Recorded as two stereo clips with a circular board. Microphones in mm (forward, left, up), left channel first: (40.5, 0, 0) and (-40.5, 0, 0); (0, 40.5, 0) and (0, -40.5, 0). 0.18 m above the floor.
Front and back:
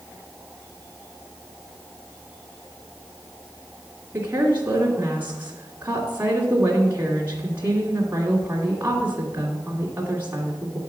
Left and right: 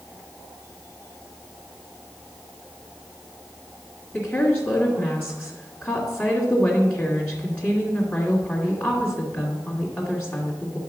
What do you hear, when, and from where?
4.1 s a woman speaking: 135° left, 1.7 m